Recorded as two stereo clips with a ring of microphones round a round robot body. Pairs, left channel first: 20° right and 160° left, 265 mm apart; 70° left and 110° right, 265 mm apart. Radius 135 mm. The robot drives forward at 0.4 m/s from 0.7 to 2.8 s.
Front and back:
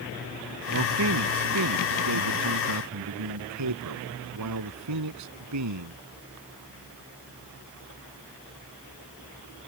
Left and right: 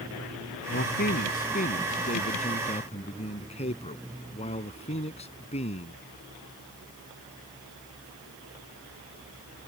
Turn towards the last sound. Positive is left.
turn(degrees=135)